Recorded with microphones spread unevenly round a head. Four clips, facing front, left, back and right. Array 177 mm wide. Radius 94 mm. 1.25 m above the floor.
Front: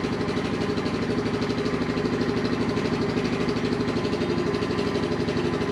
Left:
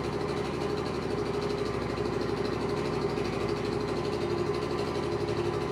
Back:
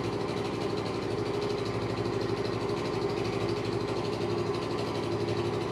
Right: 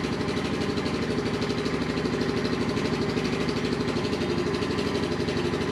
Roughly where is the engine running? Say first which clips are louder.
Right 3 dB, front 5 dB; ahead right.